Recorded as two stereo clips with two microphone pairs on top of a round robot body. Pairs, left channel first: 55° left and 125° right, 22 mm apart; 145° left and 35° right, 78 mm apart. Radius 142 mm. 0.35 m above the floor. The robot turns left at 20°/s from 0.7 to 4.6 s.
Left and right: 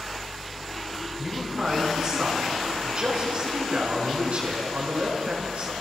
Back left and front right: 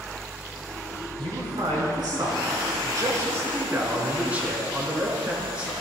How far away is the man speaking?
About 4.5 m.